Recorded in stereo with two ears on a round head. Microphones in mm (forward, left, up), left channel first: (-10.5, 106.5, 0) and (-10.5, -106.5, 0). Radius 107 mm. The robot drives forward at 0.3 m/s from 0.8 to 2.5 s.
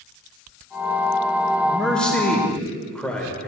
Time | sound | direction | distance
1.6 | a man speaking | 5° left (ahead or behind) | 2.0 m